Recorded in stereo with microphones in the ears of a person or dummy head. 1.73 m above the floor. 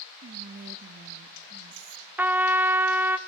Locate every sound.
0.2 s whispering: 45° right (ahead or behind), 0.6 m
2.2 s a trumpet: 10° right (ahead or behind), 0.5 m